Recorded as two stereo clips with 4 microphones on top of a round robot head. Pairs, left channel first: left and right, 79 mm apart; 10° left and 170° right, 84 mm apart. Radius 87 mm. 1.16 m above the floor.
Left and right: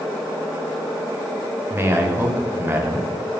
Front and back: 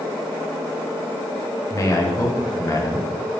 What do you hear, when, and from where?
1.7 s a man speaking: 35° right, 0.7 m